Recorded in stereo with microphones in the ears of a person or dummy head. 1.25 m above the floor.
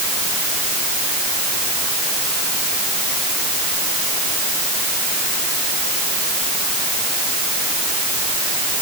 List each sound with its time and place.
Only background noise.